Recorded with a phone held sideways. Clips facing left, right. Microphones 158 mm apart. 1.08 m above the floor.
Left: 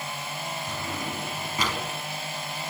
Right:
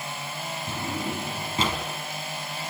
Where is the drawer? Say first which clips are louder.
Right 6 dB; 25° right (ahead or behind), 5.5 m.